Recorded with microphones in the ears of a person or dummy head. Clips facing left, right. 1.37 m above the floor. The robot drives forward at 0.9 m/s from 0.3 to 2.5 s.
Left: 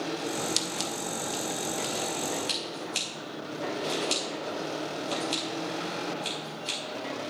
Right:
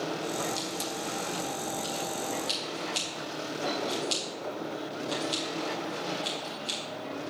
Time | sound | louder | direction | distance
0.6 | scissors | even | 80° left | 1.0 m